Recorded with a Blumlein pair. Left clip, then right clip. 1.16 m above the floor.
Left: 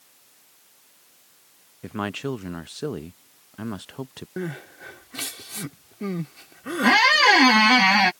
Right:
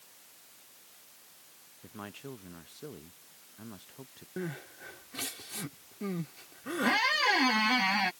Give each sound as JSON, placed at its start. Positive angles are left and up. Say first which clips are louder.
{"t": 1.8, "sound": "a man speaking", "louder": "left 16 dB", "azimuth_deg": 35}
{"t": 4.4, "sound": "crying", "louder": "left 6 dB", "azimuth_deg": 20}
{"t": 6.8, "sound": "a squeak", "louder": "left 11 dB", "azimuth_deg": 30}